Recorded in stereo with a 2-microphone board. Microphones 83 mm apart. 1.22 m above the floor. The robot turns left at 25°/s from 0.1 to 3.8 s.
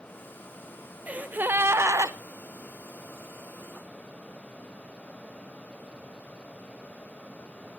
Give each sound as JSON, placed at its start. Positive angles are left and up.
{"t": 1.1, "sound": "a gasp", "side_deg": -15, "distance_m": 0.6}